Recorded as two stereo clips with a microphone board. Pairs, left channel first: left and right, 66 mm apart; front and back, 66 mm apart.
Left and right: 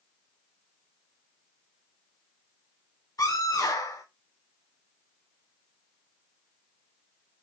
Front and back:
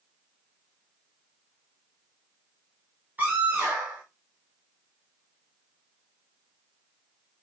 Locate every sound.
3.2 s a scream: 115° left, 5.5 m